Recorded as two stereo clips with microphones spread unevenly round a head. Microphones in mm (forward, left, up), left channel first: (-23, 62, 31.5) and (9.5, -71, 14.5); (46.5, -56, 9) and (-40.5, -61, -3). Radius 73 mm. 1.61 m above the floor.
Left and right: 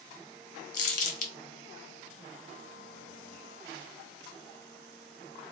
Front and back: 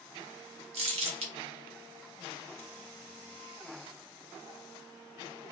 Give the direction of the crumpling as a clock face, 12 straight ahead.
7 o'clock.